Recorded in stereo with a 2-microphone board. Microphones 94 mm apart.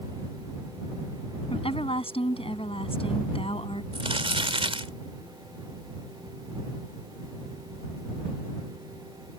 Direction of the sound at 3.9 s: 75° right (ahead or behind).